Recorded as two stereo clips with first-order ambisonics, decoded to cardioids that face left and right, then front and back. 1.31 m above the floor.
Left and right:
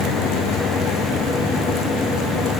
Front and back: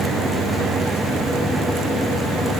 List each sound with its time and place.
Only background noise.